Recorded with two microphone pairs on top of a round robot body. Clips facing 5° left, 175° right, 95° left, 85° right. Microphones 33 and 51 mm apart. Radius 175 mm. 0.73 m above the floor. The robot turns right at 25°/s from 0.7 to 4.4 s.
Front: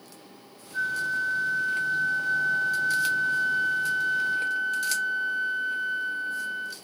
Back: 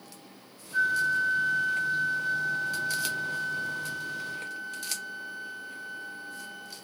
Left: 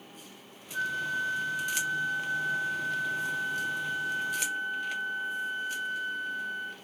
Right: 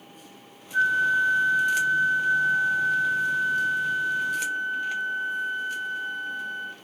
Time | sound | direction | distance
0.7 | a flute | 140° right | 1.5 m